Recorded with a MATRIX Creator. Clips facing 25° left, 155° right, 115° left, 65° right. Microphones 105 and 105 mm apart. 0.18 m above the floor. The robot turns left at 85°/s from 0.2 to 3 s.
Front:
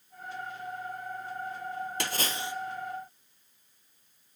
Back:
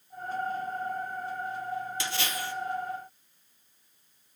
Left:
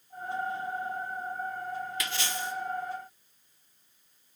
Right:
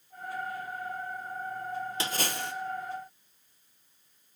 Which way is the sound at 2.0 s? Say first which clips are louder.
Even, right 1 dB; 10° right.